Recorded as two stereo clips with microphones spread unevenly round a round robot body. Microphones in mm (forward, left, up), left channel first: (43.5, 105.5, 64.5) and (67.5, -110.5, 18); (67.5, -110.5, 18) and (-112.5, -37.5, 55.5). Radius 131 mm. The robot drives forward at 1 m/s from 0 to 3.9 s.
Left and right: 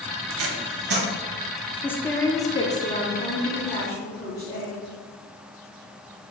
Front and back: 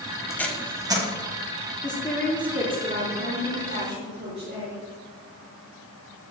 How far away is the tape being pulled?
About 0.9 m.